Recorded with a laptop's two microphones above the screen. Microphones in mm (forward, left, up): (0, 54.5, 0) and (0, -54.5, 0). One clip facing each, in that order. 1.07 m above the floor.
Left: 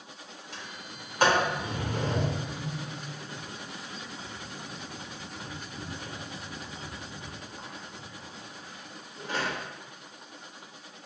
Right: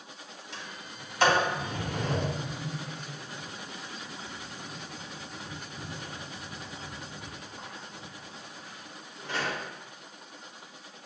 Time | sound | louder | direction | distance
0.5 | a sliding door | even | 45° left (ahead or behind) | 1.2 m